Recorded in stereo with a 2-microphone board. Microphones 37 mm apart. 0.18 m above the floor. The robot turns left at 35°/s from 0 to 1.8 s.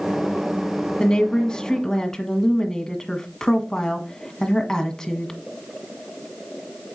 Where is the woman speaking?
25° left (ahead or behind), 1.4 m; by 5.3 s 15° left (ahead or behind), 1.4 m.